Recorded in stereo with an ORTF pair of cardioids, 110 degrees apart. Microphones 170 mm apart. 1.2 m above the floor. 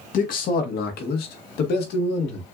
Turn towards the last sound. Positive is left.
turn(degrees=80)